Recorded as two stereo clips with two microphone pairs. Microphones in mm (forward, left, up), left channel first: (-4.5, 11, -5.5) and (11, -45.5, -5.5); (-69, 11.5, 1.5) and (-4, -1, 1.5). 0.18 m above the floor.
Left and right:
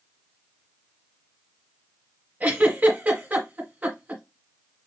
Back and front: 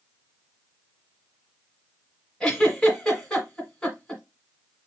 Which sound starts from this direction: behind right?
A giggle, at 2.4 s.